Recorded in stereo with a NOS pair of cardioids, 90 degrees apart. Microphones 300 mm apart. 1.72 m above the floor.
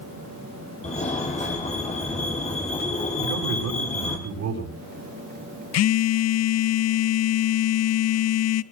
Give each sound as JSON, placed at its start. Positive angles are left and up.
{"t": 0.8, "sound": "a fire alarm", "azimuth_deg": 25, "distance_m": 8.0}
{"t": 3.2, "sound": "a man speaking", "azimuth_deg": -65, "distance_m": 9.0}
{"t": 5.7, "sound": "a phone buzzing", "azimuth_deg": 60, "distance_m": 0.8}